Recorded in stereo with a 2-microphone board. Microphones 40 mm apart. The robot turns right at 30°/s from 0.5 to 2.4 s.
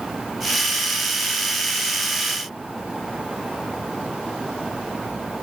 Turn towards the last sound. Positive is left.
No sound to turn to.